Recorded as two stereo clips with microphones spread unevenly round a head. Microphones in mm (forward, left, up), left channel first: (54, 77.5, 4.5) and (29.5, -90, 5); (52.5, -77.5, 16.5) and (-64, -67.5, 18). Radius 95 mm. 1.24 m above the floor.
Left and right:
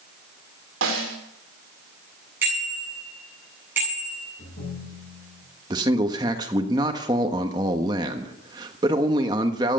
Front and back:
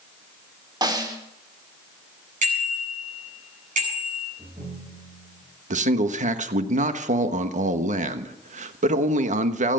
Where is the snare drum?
130° right, 4 m.